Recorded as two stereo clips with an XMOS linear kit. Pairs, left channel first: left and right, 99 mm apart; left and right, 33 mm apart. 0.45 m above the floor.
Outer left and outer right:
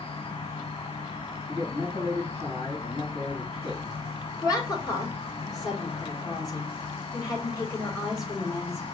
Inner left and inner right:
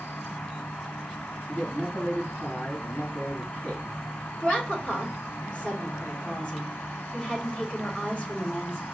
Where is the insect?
70° left (ahead or behind), 0.8 m.